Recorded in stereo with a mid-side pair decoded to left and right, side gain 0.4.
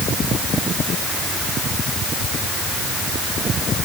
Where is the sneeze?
No sneeze in this recording.